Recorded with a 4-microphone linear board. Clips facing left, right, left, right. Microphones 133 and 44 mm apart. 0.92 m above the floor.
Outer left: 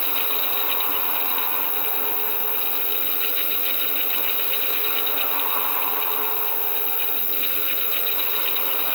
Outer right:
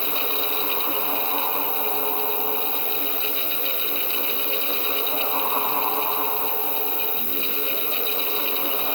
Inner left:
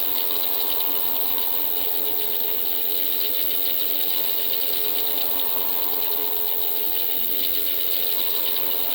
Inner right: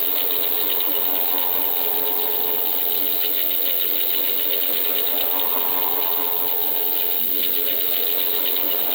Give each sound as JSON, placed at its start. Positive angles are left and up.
{"t": 0.0, "sound": "an insect", "side_deg": 40}